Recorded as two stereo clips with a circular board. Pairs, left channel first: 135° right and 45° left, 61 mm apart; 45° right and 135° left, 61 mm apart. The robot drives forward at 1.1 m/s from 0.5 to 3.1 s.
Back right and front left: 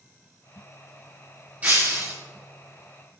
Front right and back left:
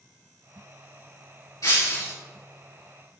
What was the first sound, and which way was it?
Breaking glass, 20° right.